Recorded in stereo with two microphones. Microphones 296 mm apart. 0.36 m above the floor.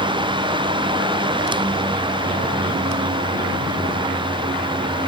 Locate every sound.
Only background noise.